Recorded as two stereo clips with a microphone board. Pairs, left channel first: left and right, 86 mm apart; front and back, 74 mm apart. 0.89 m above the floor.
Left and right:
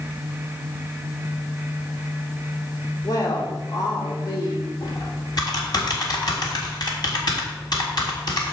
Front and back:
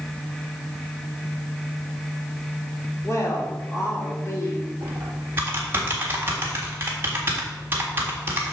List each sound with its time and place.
3.0 s a woman speaking: 55° left, 2 m
4.8 s typing on a keyboard: 125° left, 1.5 m